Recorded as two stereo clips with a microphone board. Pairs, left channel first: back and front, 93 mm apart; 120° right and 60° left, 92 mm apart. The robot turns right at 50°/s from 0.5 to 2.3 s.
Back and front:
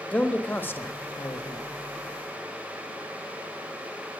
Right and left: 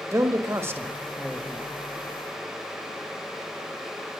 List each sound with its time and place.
0.1 s a man speaking: 110° left, 1.4 m; by 1.7 s 165° left, 1.4 m